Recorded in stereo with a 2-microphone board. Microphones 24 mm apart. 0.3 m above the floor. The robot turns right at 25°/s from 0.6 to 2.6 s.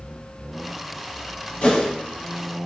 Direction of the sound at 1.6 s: 60° left (ahead or behind).